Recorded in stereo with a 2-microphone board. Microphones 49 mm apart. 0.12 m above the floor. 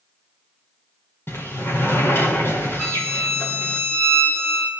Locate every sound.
1.3 s a sliding door: 55° left (ahead or behind), 3.5 m
2.8 s a violin: 5° left (ahead or behind), 1.6 m